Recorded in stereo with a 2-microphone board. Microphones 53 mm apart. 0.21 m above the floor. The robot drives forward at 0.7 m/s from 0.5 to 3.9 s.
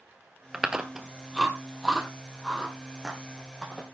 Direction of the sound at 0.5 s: 10° right (ahead or behind).